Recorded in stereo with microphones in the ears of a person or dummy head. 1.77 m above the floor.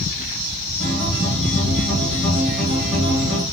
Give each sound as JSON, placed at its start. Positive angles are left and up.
{"t": 0.8, "sound": "a guitar", "side_deg": 0, "distance_m": 1.0}